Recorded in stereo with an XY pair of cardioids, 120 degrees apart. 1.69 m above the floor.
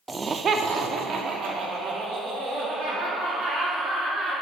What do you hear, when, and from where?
0.1 s laughter: 15° right, 0.6 m; by 4.3 s 75° right, 5 m